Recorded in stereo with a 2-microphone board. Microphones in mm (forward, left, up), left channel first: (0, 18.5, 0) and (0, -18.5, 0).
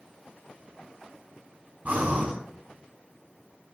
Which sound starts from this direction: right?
Breathing, at 1.9 s.